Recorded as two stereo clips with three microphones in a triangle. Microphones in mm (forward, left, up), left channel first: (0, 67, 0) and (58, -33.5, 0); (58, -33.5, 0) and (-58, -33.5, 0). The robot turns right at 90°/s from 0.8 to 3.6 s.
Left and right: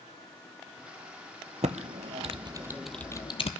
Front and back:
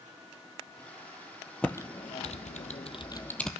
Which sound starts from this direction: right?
Typing on a keyboard, at 1.6 s.